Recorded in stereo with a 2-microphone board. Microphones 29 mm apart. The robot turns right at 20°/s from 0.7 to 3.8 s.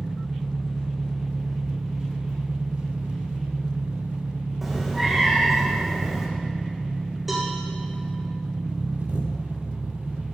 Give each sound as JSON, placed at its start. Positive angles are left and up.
{"t": 0.0, "sound": "an engine running", "azimuth_deg": -155, "distance_m": 1.5}
{"t": 4.6, "sound": "a cat meowing", "side_deg": -5, "distance_m": 2.0}
{"t": 7.3, "sound": "a cowbell", "side_deg": -10, "distance_m": 2.0}